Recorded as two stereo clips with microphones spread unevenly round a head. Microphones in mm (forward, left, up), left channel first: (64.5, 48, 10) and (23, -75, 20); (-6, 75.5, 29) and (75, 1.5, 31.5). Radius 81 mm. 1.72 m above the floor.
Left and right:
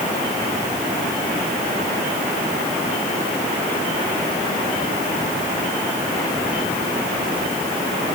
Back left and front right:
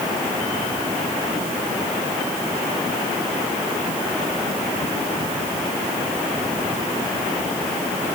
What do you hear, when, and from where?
Only background noise.